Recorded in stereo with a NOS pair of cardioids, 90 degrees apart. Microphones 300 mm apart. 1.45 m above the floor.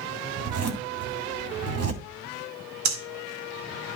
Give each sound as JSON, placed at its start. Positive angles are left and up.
{"t": 0.4, "sound": "a zipper", "azimuth_deg": -55, "distance_m": 2.5}
{"t": 2.9, "sound": "breathing", "azimuth_deg": -65, "distance_m": 2.0}